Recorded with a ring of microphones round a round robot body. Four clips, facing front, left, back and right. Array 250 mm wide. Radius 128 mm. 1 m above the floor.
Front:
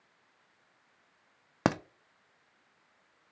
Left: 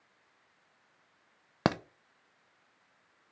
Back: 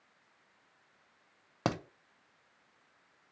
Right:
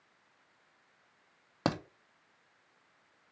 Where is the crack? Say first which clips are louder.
Left 3 dB, front 4 dB; 45° left, 0.6 m.